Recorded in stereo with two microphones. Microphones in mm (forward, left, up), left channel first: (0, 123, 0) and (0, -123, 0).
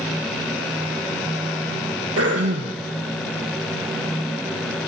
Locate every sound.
2.2 s throat clearing: 70° right (ahead or behind), 3.5 m